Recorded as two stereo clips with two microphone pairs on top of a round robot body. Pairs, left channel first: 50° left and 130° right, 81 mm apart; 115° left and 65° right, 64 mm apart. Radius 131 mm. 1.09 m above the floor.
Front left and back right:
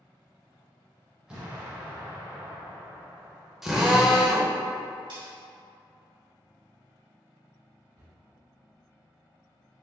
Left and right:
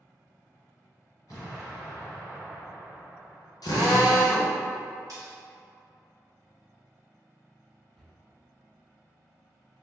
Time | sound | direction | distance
1.3 | an explosion | 165° left | 1.3 m
3.6 | a drill | 145° left | 0.7 m
5.1 | cutlery clinking | 105° right | 1.3 m
8.0 | a cupboard door | 150° right | 1.5 m